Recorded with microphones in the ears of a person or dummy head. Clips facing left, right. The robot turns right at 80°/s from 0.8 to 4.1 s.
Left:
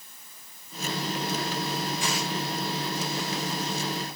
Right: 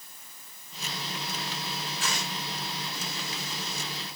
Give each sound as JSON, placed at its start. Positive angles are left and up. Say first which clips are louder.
{"t": 2.0, "sound": "tearing paper", "louder": "left 5 dB", "side_deg": 15, "distance_m": 4.0}